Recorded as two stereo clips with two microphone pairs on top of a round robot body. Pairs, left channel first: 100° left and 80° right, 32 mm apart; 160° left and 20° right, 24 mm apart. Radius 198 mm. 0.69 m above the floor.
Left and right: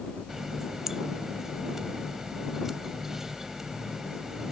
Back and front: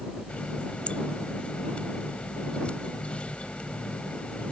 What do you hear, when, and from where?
0.3 s a running tap: 155° right